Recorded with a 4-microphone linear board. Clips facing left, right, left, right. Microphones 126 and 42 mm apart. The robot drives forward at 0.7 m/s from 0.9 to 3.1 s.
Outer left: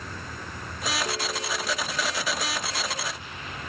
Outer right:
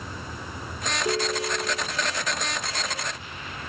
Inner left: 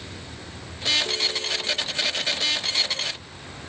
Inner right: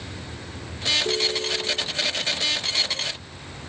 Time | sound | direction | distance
0.0 | a vehicle | 10° right (ahead or behind) | ?
1.1 | a ringtone | 30° right (ahead or behind) | ?